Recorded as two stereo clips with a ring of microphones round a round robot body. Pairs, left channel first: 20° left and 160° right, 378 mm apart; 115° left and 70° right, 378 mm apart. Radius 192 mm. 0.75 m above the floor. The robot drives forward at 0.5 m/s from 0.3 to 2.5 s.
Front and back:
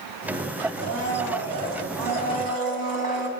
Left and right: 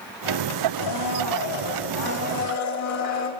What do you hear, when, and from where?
0.8 s a blender: 155° left, 2.5 m; by 3.3 s 160° left, 3 m